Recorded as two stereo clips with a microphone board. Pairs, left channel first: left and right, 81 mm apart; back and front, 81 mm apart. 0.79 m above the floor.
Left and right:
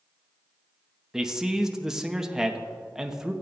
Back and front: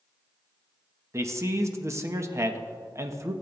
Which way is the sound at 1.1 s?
10° right.